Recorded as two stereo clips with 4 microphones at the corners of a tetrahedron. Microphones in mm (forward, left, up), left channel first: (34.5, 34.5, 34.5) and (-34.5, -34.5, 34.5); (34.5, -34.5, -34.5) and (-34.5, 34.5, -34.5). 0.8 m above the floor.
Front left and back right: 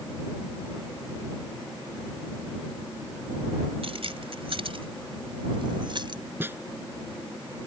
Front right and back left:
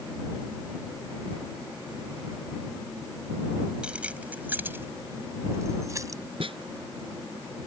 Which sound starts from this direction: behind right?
Keys jangling, at 3.8 s.